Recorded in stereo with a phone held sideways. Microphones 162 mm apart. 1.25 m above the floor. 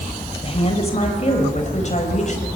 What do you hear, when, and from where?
0.4 s a woman speaking: 40° left (ahead or behind), 5 m; by 2.5 s 45° left (ahead or behind), 5.5 m